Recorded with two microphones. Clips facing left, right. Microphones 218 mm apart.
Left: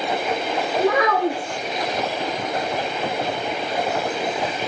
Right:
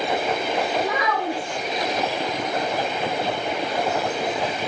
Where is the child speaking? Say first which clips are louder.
Left 6 dB; 75° left (ahead or behind), 0.6 m.